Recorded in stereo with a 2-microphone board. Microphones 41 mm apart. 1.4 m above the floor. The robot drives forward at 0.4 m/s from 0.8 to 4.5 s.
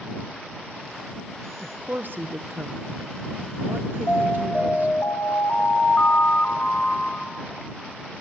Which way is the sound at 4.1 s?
40° left (ahead or behind).